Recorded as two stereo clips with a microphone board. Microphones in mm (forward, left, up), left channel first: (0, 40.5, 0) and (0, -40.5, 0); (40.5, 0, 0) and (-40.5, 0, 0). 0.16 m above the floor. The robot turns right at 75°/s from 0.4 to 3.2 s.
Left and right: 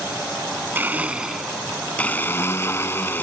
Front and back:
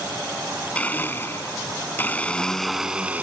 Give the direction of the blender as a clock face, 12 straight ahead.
2 o'clock.